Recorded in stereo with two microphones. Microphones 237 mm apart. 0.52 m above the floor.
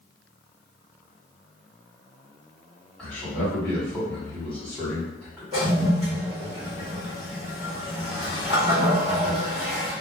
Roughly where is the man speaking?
Centre.